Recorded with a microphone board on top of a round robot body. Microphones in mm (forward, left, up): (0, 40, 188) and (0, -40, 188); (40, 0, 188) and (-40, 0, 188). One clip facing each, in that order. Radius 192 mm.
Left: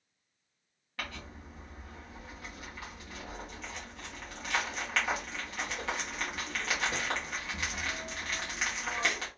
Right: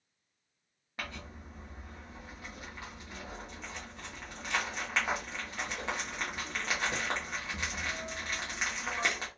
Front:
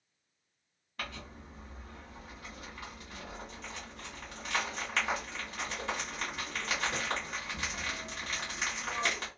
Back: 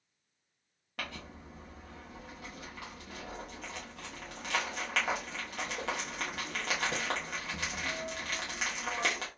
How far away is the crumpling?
About 0.6 m.